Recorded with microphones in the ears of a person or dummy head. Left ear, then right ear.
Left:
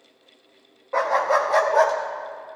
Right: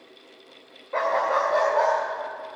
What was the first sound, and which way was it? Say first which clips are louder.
A dog barking: left 2 dB; 5° left (ahead or behind).